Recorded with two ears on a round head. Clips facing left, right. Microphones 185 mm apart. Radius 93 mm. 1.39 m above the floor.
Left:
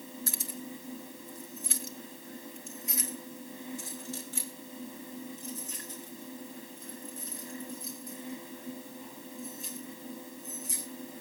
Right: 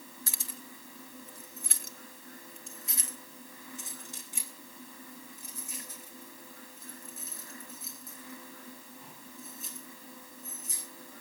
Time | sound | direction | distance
0.3 | keys jangling | 65° right (ahead or behind) | 1.3 m